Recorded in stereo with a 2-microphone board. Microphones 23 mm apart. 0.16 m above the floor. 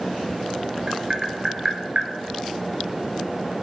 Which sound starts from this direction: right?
Tapping, at 0.9 s.